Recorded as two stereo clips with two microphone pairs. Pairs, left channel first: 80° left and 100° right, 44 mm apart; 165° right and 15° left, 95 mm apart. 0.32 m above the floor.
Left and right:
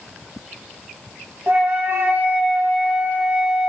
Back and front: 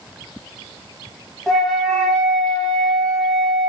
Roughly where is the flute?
Right.